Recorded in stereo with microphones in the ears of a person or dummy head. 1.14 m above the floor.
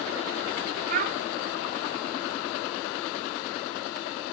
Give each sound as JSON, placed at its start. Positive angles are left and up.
{"t": 0.9, "sound": "a child speaking", "side_deg": -50, "distance_m": 1.4}